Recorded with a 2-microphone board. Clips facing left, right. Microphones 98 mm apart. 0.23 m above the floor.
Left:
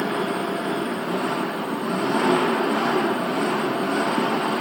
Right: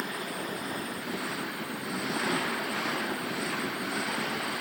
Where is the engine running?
75° left (ahead or behind).